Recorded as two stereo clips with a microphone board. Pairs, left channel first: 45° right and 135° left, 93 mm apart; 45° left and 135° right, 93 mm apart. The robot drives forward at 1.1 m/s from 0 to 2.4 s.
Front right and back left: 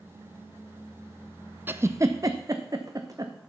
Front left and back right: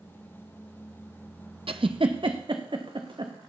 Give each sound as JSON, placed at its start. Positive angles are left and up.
{"t": 1.7, "sound": "a giggle", "azimuth_deg": -155, "distance_m": 0.5}